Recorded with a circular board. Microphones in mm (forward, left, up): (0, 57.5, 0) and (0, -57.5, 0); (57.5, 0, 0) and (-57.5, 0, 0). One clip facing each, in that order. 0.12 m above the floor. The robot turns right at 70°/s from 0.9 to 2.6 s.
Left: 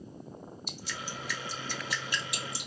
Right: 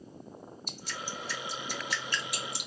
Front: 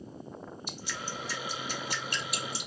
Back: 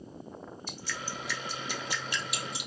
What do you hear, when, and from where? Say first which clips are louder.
0.7 s dripping: right 1 dB, even; 70° right, 1.2 m; by 2.7 s 50° left, 1.2 m